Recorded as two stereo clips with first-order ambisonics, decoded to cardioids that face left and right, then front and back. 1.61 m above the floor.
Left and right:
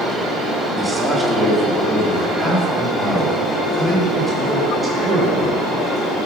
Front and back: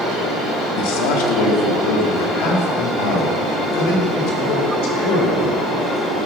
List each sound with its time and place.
0.8 s a man speaking: straight ahead, 2 m; by 6.2 s 10° right, 5.5 m